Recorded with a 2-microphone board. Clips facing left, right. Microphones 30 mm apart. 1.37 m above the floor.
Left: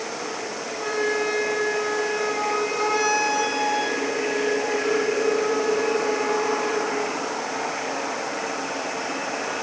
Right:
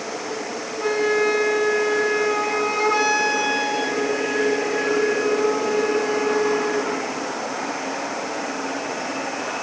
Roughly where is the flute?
Right.